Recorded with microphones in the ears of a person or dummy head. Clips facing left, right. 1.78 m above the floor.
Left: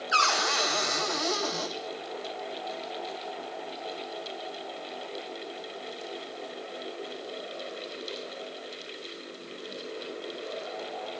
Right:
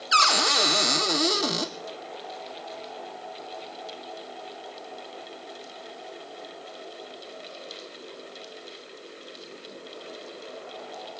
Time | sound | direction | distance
0.1 | a cupboard door | 45° right (ahead or behind) | 1.1 m